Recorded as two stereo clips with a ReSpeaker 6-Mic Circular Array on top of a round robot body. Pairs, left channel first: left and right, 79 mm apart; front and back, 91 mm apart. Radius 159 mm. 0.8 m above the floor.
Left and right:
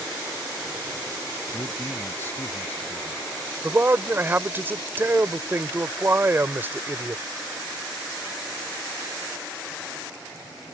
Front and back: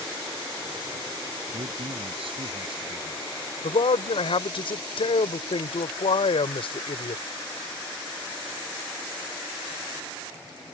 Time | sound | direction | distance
1.5 | a man speaking | 155° left | ?
3.6 | a man speaking | 25° right | ?